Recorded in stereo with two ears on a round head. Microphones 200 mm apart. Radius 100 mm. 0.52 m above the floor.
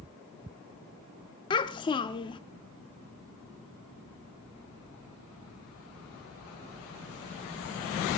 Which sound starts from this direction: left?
A child speaking, at 1.5 s.